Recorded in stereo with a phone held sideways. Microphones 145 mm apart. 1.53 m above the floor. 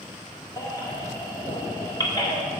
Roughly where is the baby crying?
Left.